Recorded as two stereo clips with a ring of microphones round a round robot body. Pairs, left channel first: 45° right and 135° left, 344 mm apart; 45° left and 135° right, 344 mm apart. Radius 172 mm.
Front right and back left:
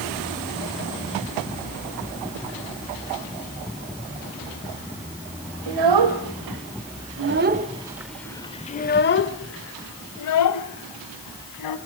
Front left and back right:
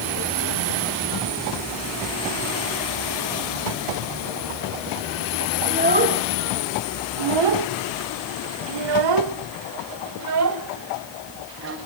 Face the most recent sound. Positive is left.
turn(degrees=-80)